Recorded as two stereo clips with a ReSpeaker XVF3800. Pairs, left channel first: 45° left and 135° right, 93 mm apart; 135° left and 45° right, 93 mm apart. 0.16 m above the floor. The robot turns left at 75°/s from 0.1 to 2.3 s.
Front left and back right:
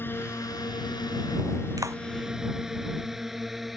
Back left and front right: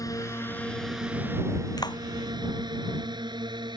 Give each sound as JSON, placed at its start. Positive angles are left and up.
{"t": 0.0, "sound": "a drone", "azimuth_deg": 100}
{"t": 1.8, "sound": "a clap", "azimuth_deg": 180}